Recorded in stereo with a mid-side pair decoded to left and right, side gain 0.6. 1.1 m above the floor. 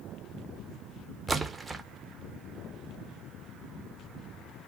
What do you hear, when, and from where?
1.3 s a splash: 20° right, 0.6 m